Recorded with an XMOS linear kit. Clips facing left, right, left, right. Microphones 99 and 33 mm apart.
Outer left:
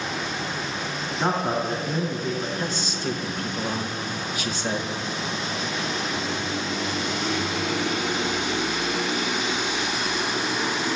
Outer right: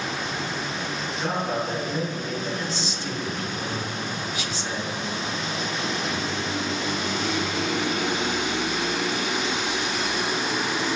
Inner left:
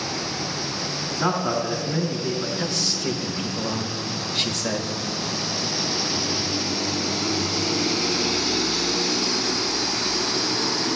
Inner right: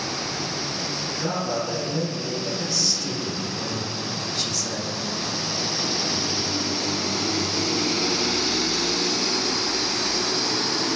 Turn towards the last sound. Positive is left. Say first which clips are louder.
# outer left 1 dB, inner left 1 dB
turn(degrees=50)  # may be behind; listen again after turning